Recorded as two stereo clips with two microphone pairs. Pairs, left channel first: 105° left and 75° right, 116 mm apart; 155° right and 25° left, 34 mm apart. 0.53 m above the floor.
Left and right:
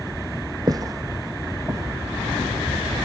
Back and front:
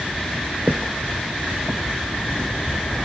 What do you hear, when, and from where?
0.7 s footsteps: 25° right, 1.1 m; by 3.0 s 10° right, 4.5 m